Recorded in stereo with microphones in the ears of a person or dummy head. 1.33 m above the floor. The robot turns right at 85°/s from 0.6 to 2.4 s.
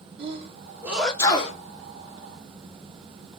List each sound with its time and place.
0.2 s a sneeze: 35° right (ahead or behind), 1.0 m; by 1.6 s 45° left (ahead or behind), 1.0 m